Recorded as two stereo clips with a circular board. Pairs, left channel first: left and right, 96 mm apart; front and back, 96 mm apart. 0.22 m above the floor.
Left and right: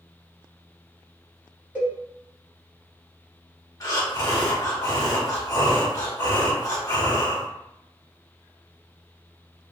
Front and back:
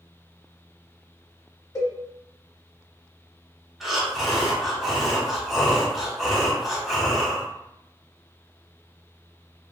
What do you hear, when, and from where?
1.8 s a cowbell: 30° right, 1.3 m
3.8 s breathing: 95° left, 0.8 m